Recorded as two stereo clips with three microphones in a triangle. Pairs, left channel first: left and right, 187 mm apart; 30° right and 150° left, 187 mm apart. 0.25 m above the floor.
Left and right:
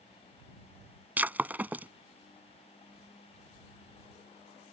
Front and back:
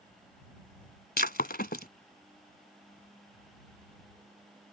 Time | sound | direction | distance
1.2 | breaking glass | 10° right | ?